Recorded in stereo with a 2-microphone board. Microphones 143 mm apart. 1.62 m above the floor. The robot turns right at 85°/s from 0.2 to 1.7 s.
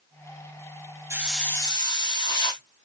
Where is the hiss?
20° right, 1.0 m; by 2.6 s 30° left, 1.0 m.